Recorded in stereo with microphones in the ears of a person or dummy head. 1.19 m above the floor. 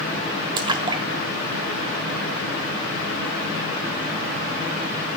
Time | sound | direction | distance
0.6 | a splash | 25° right (ahead or behind) | 1.6 m